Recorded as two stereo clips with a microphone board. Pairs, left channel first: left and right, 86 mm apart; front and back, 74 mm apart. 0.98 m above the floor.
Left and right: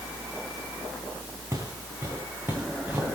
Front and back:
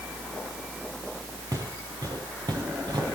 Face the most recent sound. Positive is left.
turn(degrees=-155)